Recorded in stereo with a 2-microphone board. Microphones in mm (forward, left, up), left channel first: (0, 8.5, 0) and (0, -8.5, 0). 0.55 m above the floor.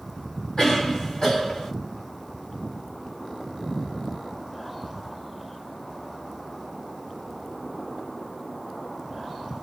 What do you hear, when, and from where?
0.6 s a cough: 45° left (ahead or behind), 1.8 m